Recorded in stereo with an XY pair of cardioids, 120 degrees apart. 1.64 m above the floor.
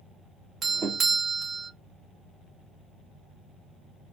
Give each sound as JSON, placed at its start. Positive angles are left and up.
{"t": 0.6, "sound": "a doorbell", "azimuth_deg": -40, "distance_m": 0.7}